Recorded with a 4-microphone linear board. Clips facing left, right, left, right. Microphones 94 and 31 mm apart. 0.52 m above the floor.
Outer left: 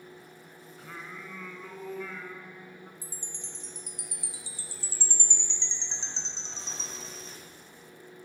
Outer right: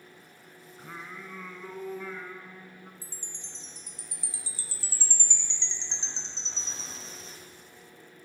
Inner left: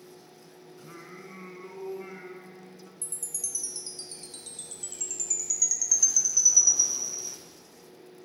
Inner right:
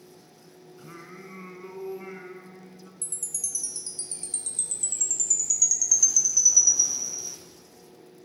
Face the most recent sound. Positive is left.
turn(degrees=20)  # may be behind; listen again after turning